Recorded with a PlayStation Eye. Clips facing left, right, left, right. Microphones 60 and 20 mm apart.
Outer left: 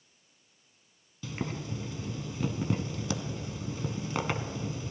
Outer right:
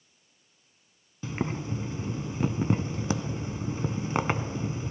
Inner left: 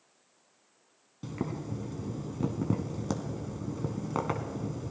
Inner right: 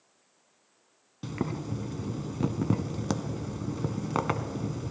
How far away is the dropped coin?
No dropped coin in this recording.